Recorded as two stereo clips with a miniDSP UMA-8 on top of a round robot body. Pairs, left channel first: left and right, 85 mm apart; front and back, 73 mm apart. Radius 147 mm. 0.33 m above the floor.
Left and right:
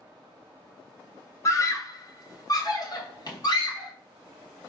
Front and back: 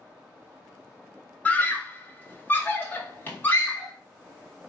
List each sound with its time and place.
1.4 s a scream: 60° left, 1.4 m; by 3.9 s 65° left, 3 m